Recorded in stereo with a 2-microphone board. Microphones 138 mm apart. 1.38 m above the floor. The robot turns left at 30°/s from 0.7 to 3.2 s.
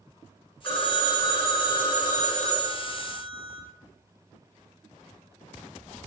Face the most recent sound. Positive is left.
turn(degrees=-65)